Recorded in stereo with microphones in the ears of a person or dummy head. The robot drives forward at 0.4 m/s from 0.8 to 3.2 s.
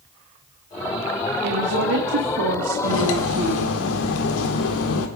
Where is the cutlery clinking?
75° left (ahead or behind), 1.7 m.